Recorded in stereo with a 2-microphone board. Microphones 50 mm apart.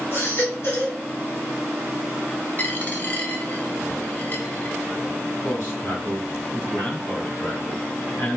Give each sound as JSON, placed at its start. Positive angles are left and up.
{"t": 0.1, "sound": "a baby crying", "side_deg": 50, "distance_m": 1.6}
{"t": 2.6, "sound": "a dropped coin", "side_deg": 35, "distance_m": 0.8}
{"t": 5.4, "sound": "a man speaking", "side_deg": 55, "distance_m": 1.6}